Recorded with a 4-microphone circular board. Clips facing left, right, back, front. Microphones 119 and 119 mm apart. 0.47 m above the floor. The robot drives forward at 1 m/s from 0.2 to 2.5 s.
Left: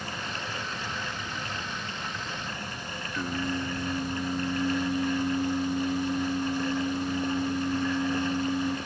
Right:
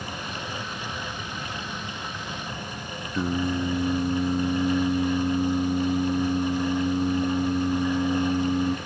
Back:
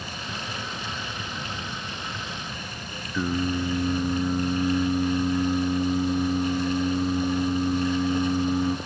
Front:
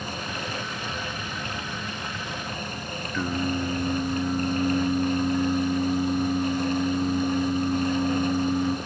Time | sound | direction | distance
3.1 | singing | 110° right | 0.5 m